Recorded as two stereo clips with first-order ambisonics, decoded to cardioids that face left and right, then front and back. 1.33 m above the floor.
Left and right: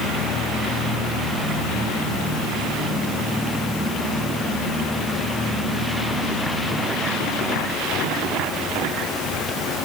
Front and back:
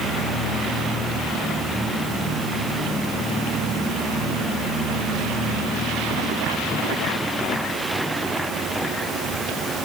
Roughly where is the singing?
I don't hear singing.